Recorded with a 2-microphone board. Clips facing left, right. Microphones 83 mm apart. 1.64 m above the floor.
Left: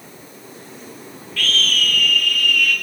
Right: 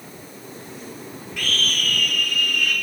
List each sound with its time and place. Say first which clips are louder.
1.4 s a scream: left 4 dB; 15° right (ahead or behind), 5 m; by 2.7 s 25° right (ahead or behind), 5 m